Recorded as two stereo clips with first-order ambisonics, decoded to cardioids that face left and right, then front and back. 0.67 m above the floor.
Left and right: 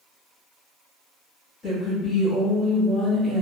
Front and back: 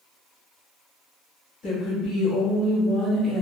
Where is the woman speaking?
25° left, 1.2 m; by 3.4 s 65° right, 0.8 m.